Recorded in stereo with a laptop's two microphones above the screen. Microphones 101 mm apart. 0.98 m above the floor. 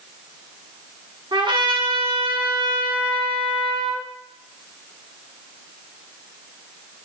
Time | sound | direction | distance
1.3 | a trumpet | 55° right (ahead or behind) | 1.6 m